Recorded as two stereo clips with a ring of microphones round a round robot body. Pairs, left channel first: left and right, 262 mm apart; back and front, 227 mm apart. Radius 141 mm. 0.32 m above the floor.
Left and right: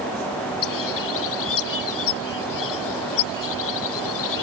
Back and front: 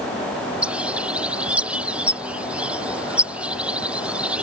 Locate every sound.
0.6 s a bird: 85° left